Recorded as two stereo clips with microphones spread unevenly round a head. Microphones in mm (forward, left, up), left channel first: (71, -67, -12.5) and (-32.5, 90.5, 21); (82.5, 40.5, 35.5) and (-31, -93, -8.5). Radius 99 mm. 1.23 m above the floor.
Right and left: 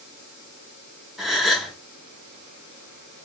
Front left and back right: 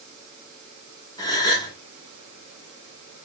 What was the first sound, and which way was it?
A gasp, 50° left.